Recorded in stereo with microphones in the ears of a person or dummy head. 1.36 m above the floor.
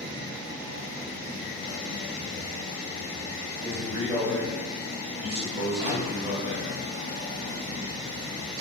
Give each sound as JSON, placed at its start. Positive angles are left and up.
{"t": 3.6, "sound": "a man speaking", "side_deg": -45, "distance_m": 1.1}
{"t": 5.8, "sound": "a microwave", "side_deg": -55, "distance_m": 1.4}